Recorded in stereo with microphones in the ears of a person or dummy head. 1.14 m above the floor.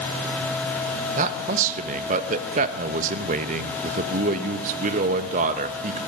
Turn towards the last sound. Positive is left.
turn(degrees=-45)  # may be behind; listen again after turning